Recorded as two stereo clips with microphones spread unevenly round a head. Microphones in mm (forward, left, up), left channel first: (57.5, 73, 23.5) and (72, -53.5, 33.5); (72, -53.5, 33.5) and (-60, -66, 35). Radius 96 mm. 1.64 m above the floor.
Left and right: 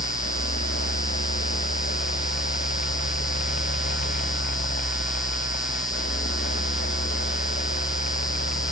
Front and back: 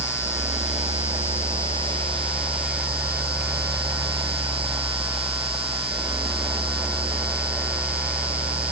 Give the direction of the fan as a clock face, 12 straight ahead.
8 o'clock.